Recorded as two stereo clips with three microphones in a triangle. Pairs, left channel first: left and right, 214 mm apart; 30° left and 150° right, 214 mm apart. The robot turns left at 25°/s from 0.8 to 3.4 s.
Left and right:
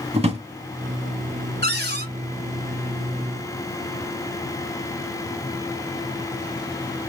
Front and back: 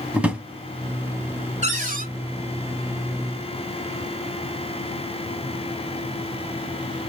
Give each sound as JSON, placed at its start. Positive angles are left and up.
{"t": 0.1, "sound": "a drawer", "azimuth_deg": -70, "distance_m": 0.8}
{"t": 1.6, "sound": "a cupboard door", "azimuth_deg": -100, "distance_m": 1.1}